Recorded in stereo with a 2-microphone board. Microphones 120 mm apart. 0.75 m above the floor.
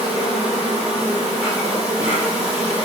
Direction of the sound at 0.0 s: 10° right (ahead or behind).